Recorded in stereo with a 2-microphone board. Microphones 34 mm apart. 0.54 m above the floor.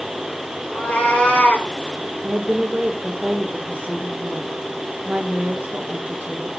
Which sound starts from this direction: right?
A woman speaking, at 2.2 s.